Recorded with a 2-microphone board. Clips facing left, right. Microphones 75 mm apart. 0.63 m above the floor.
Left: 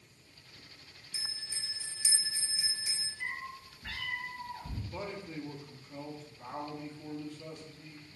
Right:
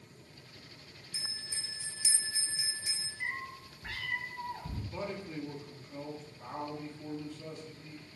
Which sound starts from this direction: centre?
A man speaking, at 4.9 s.